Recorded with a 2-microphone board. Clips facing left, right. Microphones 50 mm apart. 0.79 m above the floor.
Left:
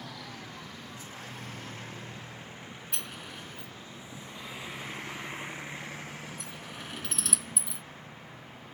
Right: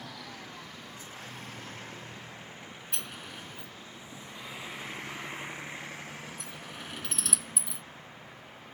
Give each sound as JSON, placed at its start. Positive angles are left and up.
{"t": 2.9, "sound": "a sliding door", "side_deg": 0}